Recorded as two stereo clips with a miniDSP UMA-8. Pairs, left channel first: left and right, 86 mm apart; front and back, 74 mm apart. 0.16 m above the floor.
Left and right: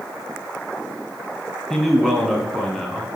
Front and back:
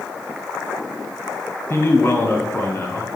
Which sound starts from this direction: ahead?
A man speaking, at 1.7 s.